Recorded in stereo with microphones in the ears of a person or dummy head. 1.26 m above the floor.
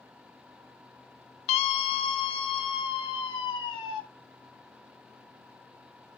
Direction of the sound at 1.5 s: 35° left (ahead or behind).